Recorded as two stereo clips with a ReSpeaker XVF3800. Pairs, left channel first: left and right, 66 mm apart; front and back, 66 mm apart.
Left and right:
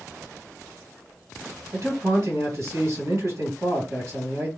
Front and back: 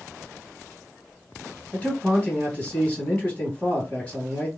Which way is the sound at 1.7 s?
65° right.